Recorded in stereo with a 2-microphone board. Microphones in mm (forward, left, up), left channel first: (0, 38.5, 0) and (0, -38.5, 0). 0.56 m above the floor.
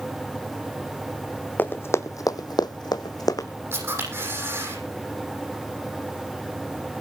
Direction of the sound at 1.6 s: 25° left (ahead or behind).